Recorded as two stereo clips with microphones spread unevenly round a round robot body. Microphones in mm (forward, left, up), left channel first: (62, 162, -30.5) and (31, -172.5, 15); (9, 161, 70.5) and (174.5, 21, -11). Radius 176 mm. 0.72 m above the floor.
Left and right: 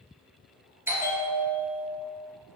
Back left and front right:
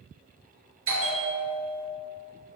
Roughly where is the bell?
Ahead.